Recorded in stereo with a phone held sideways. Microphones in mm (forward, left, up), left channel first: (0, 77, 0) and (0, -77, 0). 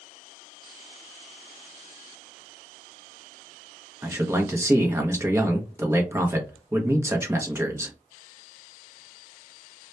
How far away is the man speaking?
About 0.6 m.